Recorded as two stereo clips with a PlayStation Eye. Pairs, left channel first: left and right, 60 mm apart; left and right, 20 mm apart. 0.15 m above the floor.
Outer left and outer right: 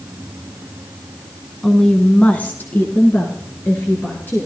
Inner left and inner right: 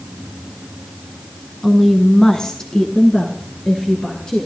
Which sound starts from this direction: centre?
A woman speaking, at 1.6 s.